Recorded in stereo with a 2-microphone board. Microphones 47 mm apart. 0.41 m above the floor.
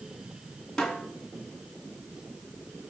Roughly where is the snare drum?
Centre.